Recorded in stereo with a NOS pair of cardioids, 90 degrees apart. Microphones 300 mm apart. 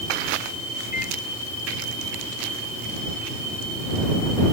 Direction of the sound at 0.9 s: 25° left.